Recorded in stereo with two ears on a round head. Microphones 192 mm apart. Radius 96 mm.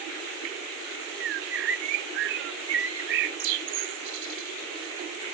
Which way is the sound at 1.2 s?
60° right (ahead or behind).